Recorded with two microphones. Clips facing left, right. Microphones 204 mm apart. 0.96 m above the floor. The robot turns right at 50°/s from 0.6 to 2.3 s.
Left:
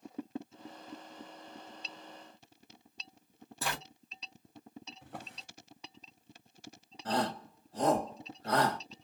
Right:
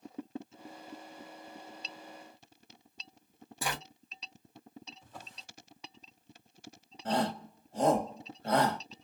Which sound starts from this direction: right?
A shout, at 7.0 s.